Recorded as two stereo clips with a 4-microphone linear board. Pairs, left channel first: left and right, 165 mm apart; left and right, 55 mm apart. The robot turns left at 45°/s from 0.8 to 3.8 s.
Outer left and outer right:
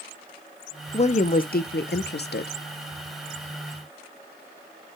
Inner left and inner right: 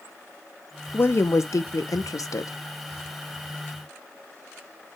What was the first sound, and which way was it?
A woman speaking, 140° left.